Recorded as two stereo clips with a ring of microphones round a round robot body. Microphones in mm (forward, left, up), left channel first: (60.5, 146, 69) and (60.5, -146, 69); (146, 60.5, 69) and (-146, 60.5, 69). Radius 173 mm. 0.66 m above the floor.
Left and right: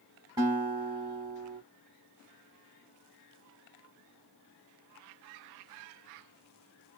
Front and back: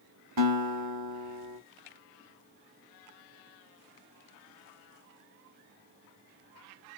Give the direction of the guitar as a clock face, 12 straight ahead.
5 o'clock.